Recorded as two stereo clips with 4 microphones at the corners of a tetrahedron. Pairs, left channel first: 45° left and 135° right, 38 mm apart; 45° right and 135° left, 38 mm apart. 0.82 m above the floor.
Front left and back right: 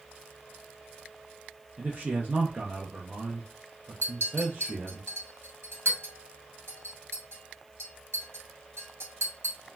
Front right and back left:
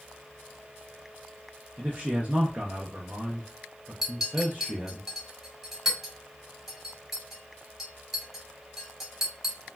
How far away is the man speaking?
About 0.5 m.